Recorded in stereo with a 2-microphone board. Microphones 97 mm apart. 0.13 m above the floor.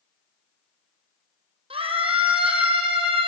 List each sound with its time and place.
1.7 s a scream: 75° right (ahead or behind), 6 m; by 3.3 s 70° right (ahead or behind), 5 m